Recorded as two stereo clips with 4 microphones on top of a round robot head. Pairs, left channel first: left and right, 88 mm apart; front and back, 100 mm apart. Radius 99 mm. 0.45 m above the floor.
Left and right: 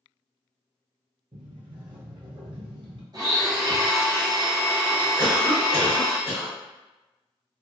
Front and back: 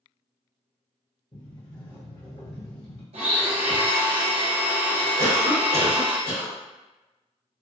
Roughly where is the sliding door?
Ahead right.